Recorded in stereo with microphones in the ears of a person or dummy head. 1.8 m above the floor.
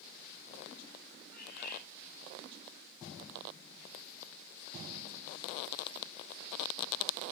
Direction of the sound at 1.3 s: 65° left (ahead or behind).